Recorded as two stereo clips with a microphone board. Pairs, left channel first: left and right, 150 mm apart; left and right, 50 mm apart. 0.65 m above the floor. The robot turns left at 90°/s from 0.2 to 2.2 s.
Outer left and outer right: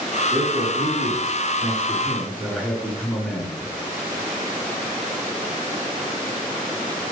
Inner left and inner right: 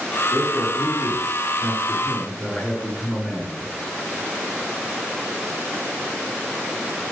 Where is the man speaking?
20° right, 8.5 m; by 3.7 s 170° left, 8.5 m.